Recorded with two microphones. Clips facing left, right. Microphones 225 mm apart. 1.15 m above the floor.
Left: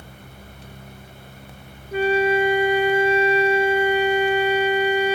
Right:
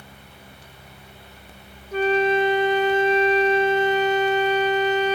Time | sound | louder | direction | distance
1.9 | a flute | left 1 dB | 10° left (ahead or behind) | 0.7 m